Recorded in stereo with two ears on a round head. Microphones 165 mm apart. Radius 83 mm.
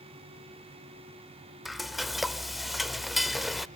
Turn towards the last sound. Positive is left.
turn(degrees=0)  # may be behind; listen again after turning